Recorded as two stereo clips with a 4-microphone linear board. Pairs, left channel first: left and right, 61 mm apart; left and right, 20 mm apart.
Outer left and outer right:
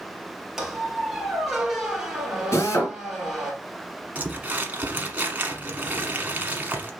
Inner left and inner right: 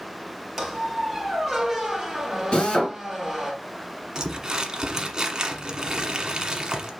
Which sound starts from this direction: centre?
A squeak, at 0.6 s.